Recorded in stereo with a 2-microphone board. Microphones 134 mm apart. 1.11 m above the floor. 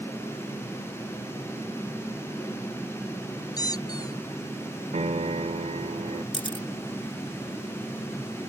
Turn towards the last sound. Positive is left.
turn(degrees=40)  # may be behind; listen again after turning